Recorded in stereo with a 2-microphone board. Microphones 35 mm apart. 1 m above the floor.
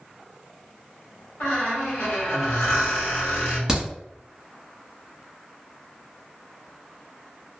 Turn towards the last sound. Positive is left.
turn(degrees=-10)  # may be behind; listen again after turning